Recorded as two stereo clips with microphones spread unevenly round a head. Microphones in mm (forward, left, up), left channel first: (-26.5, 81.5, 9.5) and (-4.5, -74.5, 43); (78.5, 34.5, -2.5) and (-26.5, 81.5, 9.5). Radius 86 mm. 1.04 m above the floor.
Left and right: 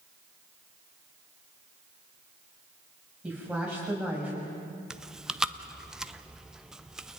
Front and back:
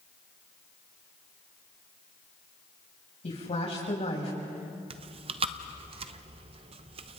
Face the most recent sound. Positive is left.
turn(degrees=180)